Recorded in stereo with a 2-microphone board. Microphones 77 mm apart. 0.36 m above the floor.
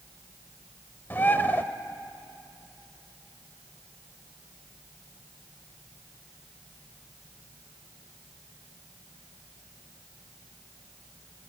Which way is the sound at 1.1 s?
25° left (ahead or behind).